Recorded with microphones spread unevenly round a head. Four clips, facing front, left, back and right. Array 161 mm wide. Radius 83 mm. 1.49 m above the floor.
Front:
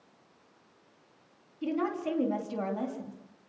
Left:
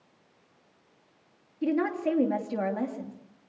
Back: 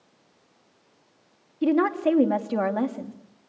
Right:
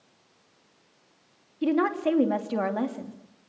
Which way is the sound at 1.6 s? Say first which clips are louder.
Right 3 dB, back 10 dB; straight behind.